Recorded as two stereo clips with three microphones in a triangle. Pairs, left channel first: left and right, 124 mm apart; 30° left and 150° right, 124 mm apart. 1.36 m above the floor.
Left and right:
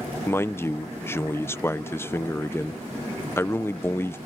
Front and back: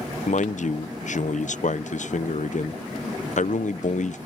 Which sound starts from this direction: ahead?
A man speaking, at 0.3 s.